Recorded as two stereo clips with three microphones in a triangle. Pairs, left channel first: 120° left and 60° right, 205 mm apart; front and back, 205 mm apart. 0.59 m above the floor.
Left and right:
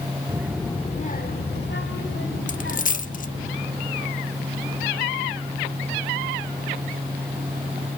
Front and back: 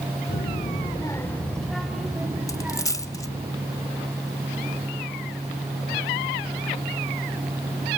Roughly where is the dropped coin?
Left.